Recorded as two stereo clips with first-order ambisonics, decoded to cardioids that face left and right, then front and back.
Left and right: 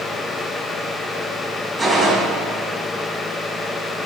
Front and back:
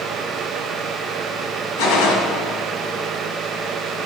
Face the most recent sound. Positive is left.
turn(degrees=-15)